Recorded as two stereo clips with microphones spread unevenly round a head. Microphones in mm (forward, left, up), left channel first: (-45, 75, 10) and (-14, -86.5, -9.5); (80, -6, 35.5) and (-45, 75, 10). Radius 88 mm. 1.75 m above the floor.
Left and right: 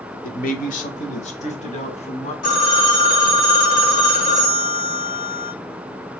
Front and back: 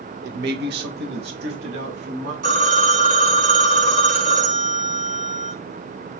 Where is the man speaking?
135° left, 0.8 m; by 2.3 s 150° left, 2.0 m.